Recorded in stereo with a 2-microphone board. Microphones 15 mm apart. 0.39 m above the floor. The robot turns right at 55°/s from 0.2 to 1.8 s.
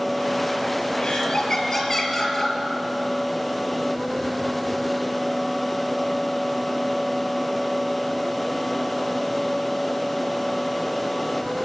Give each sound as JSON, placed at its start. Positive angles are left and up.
{"t": 1.0, "sound": "laughter", "azimuth_deg": 115, "distance_m": 4.0}